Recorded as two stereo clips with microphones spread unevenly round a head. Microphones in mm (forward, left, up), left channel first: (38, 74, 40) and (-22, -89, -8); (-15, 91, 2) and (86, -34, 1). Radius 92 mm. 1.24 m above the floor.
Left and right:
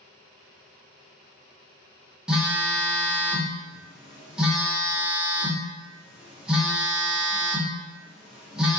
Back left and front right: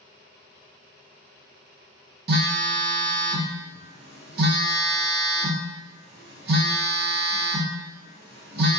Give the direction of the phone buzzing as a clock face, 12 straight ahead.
1 o'clock.